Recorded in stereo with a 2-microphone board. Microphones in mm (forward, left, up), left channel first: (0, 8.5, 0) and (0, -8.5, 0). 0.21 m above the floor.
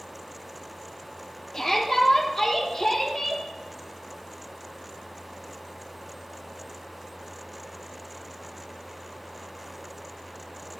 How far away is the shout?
About 5 m.